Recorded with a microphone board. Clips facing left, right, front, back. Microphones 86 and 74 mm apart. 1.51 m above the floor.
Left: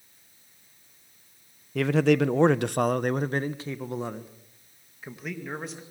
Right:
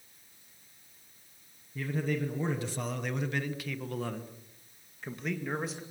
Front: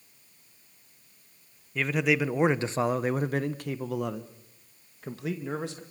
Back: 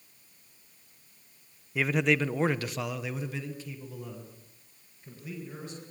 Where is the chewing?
No chewing in this recording.